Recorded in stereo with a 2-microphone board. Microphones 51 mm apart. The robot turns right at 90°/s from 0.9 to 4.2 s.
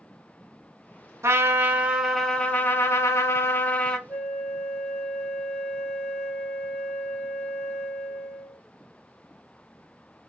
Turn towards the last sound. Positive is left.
turn(degrees=30)  # may be behind; listen again after turning